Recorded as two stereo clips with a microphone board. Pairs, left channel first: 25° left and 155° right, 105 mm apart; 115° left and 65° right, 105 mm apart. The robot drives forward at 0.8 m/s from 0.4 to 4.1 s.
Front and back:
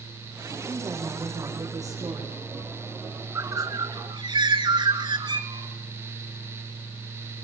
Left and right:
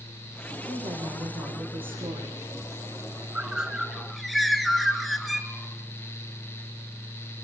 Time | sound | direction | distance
0.7 | a woman speaking | 95° right | 9 m
3.4 | a bird | 135° right | 1.2 m